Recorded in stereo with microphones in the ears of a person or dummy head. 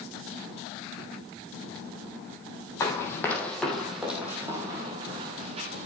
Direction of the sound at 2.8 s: 20° left (ahead or behind).